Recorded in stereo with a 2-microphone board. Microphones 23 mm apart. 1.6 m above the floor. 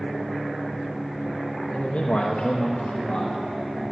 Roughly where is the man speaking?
Left.